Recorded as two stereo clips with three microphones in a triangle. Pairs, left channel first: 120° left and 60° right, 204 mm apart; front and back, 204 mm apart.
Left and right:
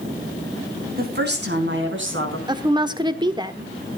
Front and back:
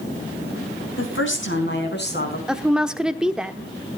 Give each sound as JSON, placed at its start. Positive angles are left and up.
{"t": 1.0, "sound": "a woman speaking", "azimuth_deg": -20, "distance_m": 4.5}
{"t": 2.5, "sound": "a woman speaking", "azimuth_deg": -95, "distance_m": 1.1}